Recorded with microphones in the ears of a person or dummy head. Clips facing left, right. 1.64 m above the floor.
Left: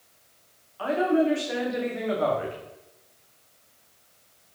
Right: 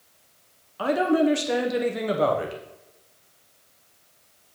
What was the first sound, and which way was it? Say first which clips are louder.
A woman speaking: right 2 dB; 50° right (ahead or behind).